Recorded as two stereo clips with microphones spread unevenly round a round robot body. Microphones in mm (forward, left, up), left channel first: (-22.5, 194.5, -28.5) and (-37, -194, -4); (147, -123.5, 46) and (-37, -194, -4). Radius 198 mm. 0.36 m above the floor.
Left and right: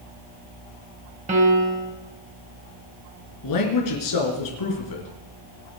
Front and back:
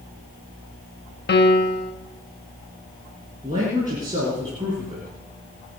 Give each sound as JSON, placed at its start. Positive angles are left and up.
{"t": 1.3, "sound": "a piano", "azimuth_deg": -20, "distance_m": 1.2}
{"t": 3.4, "sound": "a man speaking", "azimuth_deg": 125, "distance_m": 4.0}